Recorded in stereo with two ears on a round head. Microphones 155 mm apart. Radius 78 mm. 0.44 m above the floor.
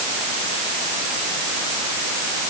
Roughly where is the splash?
I don't hear a splash.